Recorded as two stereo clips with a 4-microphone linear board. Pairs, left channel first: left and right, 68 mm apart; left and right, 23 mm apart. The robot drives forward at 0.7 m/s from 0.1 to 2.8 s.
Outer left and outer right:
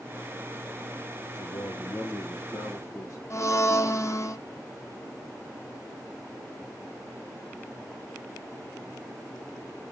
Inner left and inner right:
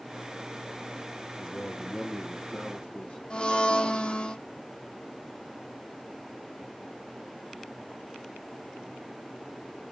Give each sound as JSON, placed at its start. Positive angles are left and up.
{"t": 1.4, "sound": "a man speaking", "side_deg": 55, "distance_m": 3.0}
{"t": 3.3, "sound": "a blender", "side_deg": 45, "distance_m": 1.3}